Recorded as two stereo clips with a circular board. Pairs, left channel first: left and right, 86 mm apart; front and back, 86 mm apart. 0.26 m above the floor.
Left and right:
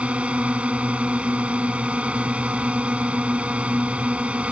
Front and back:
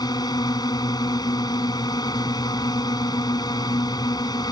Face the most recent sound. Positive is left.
turn(degrees=-15)